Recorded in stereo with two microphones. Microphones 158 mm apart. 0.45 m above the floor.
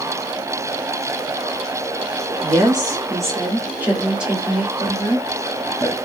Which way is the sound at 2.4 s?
30° right (ahead or behind).